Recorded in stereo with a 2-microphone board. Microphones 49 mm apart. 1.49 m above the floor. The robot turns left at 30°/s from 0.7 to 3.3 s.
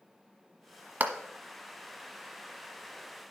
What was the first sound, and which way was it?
A clap, 40° right (ahead or behind).